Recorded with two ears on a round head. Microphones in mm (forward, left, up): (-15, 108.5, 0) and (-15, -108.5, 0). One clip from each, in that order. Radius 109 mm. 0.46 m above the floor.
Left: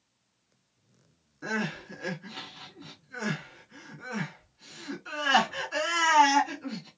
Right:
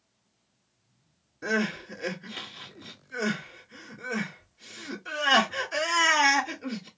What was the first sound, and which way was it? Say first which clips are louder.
Crying: right 4 dB; 10° right (ahead or behind).